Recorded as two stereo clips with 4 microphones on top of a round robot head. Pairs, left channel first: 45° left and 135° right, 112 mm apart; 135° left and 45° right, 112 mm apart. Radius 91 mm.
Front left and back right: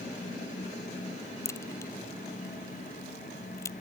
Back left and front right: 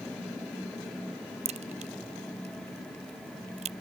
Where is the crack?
20° right.